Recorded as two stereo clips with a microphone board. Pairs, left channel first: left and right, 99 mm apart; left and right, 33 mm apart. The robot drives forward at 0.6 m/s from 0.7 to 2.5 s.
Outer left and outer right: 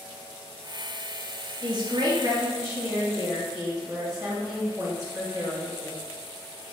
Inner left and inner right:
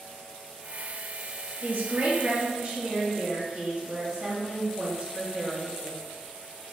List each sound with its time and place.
1.6 s a woman speaking: 50° right (ahead or behind), 0.9 m; by 6.0 s 30° right (ahead or behind), 1.3 m